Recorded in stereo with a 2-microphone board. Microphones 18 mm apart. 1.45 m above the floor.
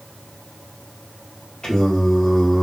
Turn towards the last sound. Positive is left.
turn(degrees=45)  # may be behind; listen again after turning